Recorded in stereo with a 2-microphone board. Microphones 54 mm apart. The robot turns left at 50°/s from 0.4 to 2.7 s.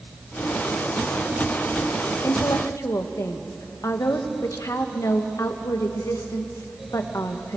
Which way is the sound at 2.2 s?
80° left.